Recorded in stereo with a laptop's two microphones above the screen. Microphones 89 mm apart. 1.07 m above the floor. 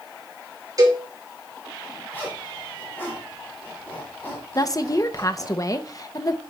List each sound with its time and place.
0.8 s a cowbell: 40° right (ahead or behind), 3 m
2.1 s a zipper: 20° left (ahead or behind), 3 m
4.5 s a woman speaking: 40° left (ahead or behind), 0.8 m